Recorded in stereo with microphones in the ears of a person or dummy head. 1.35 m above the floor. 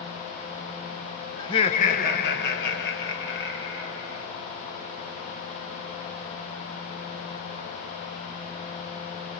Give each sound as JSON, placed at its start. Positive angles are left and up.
{"t": 1.4, "sound": "laughter", "side_deg": 15, "distance_m": 0.7}